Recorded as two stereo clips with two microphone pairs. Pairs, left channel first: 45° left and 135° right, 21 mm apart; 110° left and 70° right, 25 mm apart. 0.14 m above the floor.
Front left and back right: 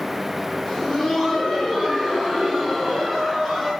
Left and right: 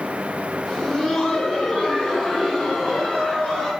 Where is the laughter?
70° left, 1.5 m; by 3.7 s 140° left, 2.5 m.